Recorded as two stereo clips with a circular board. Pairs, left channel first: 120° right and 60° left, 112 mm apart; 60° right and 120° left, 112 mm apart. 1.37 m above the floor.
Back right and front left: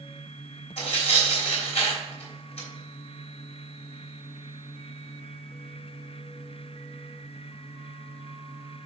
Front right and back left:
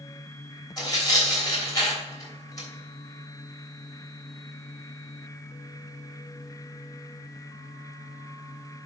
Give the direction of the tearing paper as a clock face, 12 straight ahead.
4 o'clock.